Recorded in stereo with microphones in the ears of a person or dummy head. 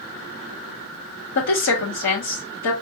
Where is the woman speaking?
65° left (ahead or behind), 2 m.